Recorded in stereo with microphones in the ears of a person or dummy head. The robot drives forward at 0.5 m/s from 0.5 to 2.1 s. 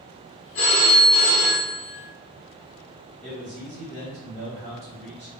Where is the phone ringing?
40° left (ahead or behind), 0.8 m; by 1.9 s 30° left (ahead or behind), 1.0 m.